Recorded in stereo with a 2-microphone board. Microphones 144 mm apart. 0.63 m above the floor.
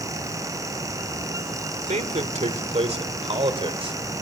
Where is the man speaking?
55° right (ahead or behind), 1.8 m; by 4.0 s 40° right (ahead or behind), 3 m.